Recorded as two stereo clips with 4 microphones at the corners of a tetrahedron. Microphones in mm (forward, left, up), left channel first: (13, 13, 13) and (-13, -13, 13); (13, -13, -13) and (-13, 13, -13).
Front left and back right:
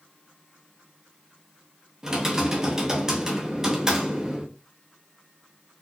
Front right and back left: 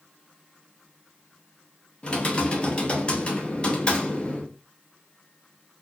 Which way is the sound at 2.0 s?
85° right.